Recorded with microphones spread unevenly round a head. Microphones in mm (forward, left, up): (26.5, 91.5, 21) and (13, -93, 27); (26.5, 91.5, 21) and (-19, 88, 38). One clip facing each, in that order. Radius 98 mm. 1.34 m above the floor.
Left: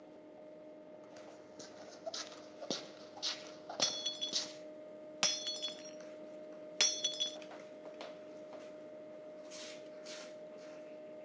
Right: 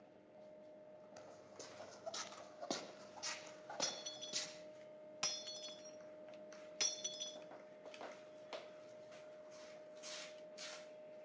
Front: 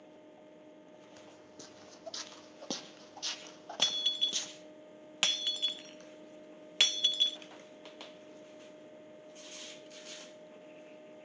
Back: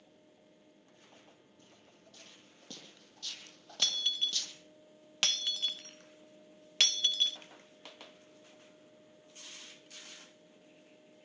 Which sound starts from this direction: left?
Breaking glass, at 3.8 s.